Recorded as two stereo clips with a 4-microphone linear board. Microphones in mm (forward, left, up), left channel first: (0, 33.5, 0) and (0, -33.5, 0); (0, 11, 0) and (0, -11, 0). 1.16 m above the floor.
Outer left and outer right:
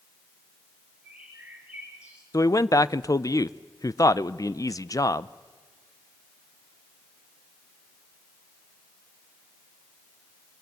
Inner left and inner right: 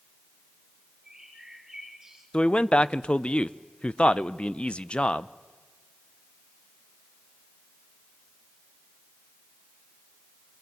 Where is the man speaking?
55° left (ahead or behind), 0.6 m.